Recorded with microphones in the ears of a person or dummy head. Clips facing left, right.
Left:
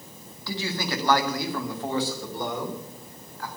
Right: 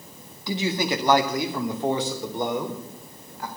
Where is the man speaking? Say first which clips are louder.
Right 5 dB; 20° right (ahead or behind), 1.6 m.